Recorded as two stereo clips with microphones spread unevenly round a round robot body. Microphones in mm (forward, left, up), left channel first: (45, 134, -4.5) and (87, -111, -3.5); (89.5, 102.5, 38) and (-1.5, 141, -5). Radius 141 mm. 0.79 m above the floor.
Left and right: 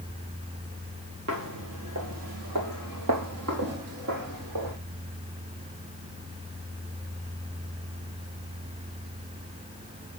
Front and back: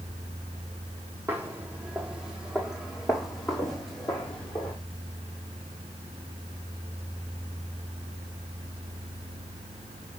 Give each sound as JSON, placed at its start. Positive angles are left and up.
{"t": 1.3, "sound": "footsteps", "azimuth_deg": -120, "distance_m": 1.4}